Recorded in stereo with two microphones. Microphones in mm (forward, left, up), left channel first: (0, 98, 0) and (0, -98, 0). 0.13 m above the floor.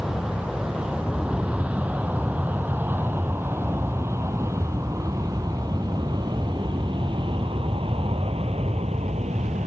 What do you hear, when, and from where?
0.0 s an aircraft: 5° right (ahead or behind); by 9.7 s 35° right (ahead or behind)